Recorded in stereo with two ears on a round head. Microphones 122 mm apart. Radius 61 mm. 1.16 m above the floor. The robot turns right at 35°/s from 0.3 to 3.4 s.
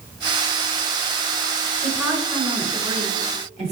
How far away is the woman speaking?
About 5.5 m.